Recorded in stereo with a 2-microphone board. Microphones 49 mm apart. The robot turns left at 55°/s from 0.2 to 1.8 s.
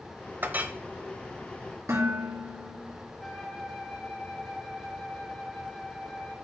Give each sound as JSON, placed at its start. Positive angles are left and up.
{"t": 0.4, "sound": "a clink", "side_deg": -40, "distance_m": 0.7}
{"t": 1.9, "sound": "dishes clattering", "side_deg": -80, "distance_m": 2.5}
{"t": 3.2, "sound": "a flute", "side_deg": 20, "distance_m": 1.8}